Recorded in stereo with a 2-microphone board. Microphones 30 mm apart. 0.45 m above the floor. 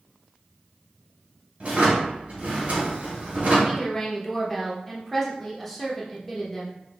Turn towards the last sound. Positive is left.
turn(degrees=10)  # may be behind; listen again after turning